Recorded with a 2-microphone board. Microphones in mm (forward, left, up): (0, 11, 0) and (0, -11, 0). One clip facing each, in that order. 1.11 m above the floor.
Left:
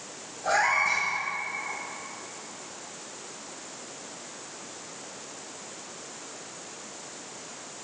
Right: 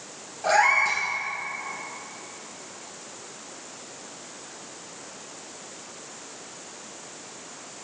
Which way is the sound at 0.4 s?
50° right (ahead or behind).